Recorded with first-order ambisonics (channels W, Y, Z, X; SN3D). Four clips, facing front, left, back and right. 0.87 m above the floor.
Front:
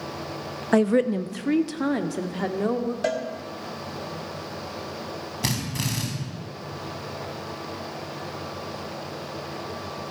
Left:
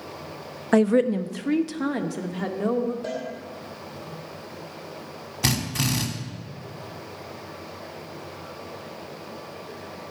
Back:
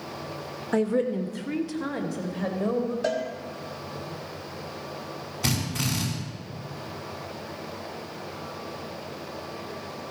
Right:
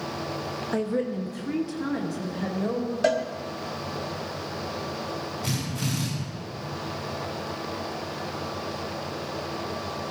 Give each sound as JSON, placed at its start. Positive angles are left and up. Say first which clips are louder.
{"t": 0.7, "sound": "a woman speaking", "louder": "left 9 dB, front 4 dB", "azimuth_deg": 45, "distance_m": 0.7}
{"t": 3.0, "sound": "a cowbell", "louder": "right 8 dB, front 3 dB", "azimuth_deg": -65, "distance_m": 1.2}
{"t": 5.4, "sound": "a drill", "louder": "left 8 dB, back 1 dB", "azimuth_deg": 70, "distance_m": 3.5}